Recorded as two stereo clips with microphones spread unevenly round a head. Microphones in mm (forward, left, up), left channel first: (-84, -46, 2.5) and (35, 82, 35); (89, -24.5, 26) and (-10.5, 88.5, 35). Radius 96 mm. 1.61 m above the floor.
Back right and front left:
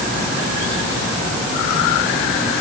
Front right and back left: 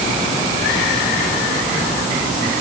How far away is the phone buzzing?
I don't hear a phone buzzing.